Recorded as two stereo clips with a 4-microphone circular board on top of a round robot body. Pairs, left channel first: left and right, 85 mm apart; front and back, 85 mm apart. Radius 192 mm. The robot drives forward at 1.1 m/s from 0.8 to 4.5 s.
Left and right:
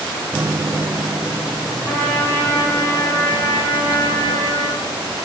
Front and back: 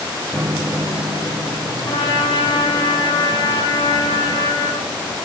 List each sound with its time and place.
0.3 s a microwave: 140° right, 0.6 m; by 2.9 s 175° right, 2.5 m
1.9 s a trumpet: 25° left, 6 m; by 4.9 s 45° left, 4 m